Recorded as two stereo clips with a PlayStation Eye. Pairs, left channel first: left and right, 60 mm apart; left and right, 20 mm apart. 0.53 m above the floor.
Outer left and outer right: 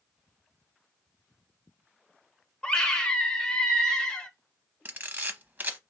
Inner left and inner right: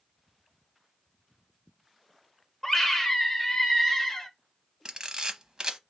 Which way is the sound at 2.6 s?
15° left (ahead or behind).